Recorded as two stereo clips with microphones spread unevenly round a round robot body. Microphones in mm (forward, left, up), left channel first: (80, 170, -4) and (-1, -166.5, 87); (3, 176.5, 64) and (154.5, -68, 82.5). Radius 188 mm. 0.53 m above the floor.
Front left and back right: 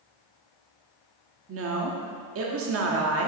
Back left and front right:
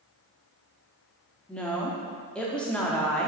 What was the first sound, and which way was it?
A woman speaking, 160° right.